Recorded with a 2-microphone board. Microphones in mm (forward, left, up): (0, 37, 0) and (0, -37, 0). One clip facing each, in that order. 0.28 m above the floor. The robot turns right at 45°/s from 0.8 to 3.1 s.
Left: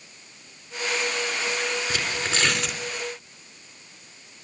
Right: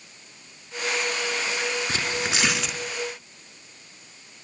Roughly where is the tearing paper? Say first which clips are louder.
Even; ahead right.